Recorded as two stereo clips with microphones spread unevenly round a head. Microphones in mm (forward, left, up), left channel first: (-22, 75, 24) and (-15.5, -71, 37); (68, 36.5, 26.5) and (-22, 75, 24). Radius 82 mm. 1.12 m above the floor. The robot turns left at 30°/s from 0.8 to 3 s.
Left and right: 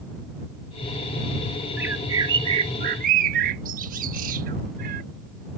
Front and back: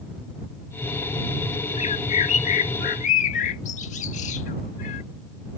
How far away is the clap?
I don't hear a clap.